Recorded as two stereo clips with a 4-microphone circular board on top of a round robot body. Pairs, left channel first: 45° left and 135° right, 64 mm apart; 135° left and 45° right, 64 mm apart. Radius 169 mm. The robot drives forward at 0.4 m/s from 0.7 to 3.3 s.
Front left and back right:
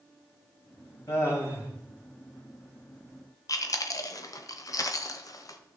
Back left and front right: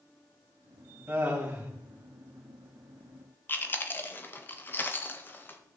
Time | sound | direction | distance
1.1 | laughter | 25° left | 3.5 m
3.5 | chewing | 75° left | 0.9 m